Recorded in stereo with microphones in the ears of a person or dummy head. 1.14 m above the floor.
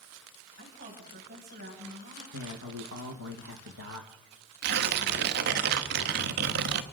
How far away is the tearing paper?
About 1.1 m.